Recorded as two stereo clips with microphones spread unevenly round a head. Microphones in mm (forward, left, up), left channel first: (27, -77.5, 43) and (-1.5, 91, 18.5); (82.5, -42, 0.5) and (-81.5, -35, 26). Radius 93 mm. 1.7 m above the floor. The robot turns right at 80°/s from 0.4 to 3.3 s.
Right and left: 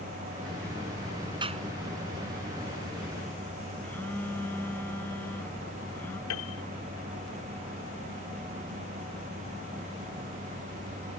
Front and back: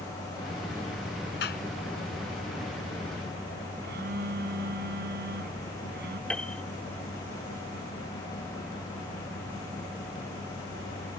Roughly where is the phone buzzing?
Behind.